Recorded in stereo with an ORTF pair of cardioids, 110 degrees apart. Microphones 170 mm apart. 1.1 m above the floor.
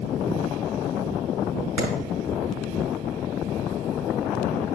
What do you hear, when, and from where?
1.8 s a clap: 70° right, 5 m